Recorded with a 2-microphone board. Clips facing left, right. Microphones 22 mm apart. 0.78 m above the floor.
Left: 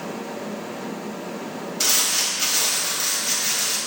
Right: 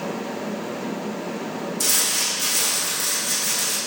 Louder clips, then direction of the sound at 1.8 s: Left 2 dB; 35° left (ahead or behind).